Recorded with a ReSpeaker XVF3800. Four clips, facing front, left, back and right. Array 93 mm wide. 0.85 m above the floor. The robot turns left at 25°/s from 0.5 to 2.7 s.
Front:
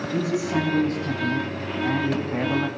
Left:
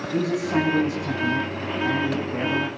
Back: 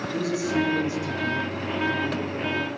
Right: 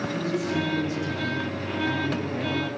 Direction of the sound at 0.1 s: 65° left.